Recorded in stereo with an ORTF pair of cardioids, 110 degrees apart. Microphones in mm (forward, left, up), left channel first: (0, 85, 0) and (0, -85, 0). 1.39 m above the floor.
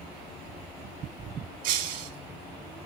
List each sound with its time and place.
1.6 s breaking glass: 55° right, 1.7 m